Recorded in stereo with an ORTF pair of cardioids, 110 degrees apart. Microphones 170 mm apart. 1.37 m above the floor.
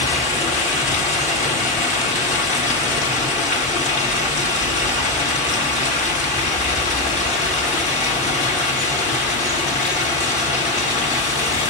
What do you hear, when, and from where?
0.0 s running water: 45° left, 1.9 m